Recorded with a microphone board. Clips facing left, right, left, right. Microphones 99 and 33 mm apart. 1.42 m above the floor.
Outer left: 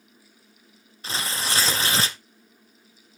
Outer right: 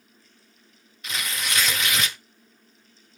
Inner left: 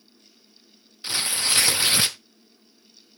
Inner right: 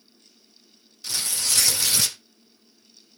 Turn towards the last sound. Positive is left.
turn(degrees=35)  # may be behind; listen again after turning